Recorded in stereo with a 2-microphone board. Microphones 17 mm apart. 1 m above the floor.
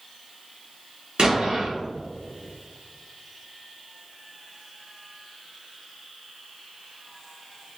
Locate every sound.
1.2 s an explosion: 65° right (ahead or behind), 1.4 m